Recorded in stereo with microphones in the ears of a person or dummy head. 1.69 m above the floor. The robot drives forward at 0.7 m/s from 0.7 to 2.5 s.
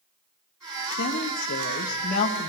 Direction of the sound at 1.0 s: 65° left (ahead or behind).